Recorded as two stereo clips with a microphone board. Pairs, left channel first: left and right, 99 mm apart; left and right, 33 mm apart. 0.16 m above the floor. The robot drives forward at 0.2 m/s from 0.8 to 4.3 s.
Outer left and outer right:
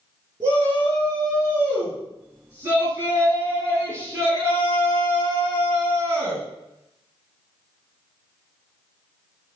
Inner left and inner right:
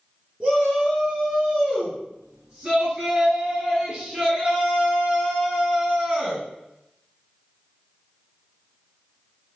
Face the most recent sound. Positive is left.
turn(degrees=-25)  # may be behind; listen again after turning